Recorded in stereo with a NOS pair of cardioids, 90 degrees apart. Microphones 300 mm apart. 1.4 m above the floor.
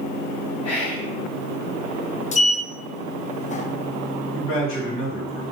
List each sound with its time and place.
0.6 s whispering: 60° left, 1.3 m
2.3 s a sliding door: 25° left, 0.5 m
4.3 s a man speaking: 45° left, 2.5 m